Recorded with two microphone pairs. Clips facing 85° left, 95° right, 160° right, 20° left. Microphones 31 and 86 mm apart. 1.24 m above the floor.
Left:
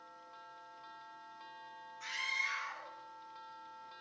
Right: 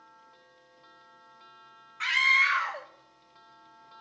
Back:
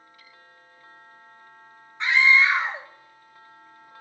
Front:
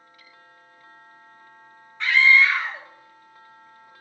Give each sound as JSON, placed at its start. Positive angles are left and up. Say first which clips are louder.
{"t": 2.0, "sound": "a scream", "louder": "right 15 dB, front 1 dB", "azimuth_deg": -90, "distance_m": 1.1}